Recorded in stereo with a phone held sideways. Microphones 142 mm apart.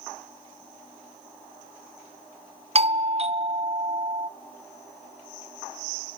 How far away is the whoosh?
No whoosh in this recording.